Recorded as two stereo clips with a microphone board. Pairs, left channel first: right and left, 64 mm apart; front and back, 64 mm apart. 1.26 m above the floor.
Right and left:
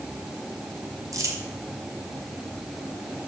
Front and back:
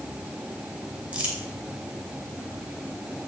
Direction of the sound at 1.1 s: 110° left.